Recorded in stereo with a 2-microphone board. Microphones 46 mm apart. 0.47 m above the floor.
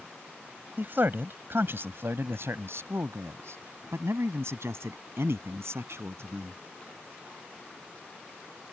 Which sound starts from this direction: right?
A man speaking, at 0.8 s.